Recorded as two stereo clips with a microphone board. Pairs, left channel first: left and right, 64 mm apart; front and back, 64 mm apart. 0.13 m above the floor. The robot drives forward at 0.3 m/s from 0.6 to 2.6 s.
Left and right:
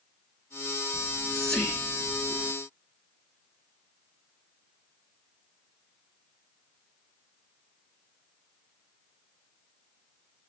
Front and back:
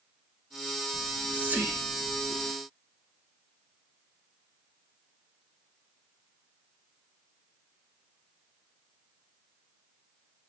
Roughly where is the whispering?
Behind left.